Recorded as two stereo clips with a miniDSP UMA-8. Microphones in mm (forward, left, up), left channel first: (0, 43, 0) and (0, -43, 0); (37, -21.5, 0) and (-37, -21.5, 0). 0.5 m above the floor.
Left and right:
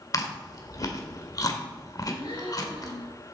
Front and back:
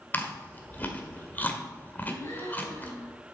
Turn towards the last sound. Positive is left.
turn(degrees=55)